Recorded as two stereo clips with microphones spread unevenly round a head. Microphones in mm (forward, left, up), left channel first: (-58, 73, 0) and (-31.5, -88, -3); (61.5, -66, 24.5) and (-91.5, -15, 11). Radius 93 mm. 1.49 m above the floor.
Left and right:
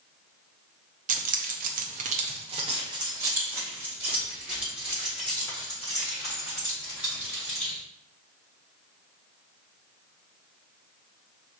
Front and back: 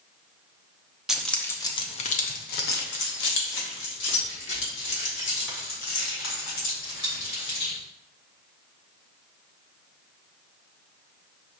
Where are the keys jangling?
110° right, 0.6 m; by 7.8 s 10° left, 3 m.